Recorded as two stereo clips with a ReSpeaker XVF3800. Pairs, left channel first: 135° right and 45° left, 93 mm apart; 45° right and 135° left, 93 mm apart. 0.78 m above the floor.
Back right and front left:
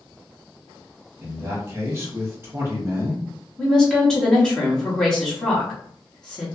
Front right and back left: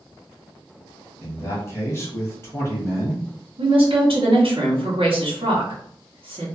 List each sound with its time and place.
1.2 s a man speaking: straight ahead, 1.0 m
3.6 s a woman speaking: 145° left, 1.3 m